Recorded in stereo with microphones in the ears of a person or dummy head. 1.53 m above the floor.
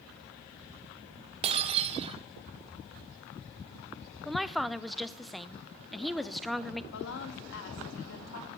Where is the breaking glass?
30° right (ahead or behind), 1.7 m.